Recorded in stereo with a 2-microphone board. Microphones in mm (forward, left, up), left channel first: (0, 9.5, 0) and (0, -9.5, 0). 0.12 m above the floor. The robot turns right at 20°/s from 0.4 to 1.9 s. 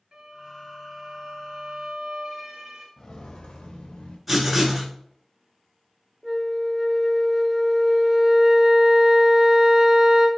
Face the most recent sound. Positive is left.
turn(degrees=-15)  # may be behind; listen again after turning